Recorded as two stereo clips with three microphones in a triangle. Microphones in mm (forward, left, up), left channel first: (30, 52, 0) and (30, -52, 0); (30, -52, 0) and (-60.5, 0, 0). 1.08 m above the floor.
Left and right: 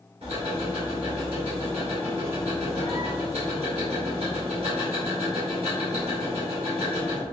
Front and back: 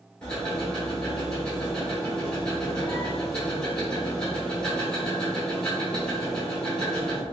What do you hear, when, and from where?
0.2 s ticking: 110° right, 1.8 m